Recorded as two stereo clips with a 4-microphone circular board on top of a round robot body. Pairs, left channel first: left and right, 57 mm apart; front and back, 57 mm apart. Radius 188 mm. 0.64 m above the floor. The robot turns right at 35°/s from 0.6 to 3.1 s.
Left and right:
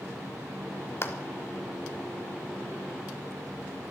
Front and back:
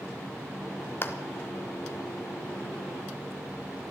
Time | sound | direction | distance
1.0 | a clap | 50° left | 1.6 m